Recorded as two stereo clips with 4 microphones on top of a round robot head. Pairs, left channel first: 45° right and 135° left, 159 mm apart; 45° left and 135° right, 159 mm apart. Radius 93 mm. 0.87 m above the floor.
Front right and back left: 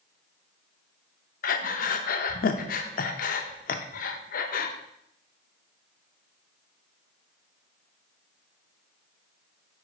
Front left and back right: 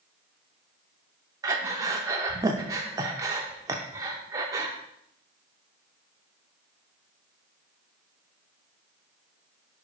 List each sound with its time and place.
1.4 s breathing: 65° right, 0.5 m